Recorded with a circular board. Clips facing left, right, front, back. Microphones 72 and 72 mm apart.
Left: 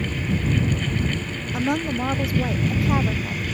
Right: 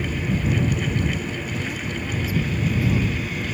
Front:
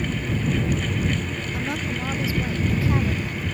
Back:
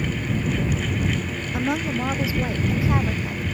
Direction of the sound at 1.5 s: 110° left.